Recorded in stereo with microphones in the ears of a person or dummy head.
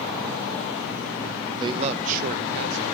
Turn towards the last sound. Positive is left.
turn(degrees=-65)  # may be behind; listen again after turning